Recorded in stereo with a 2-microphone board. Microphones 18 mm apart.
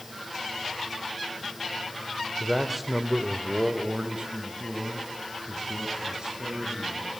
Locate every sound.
2.4 s a man speaking: 10° left (ahead or behind), 1.5 m; by 7.1 s 55° right (ahead or behind), 6 m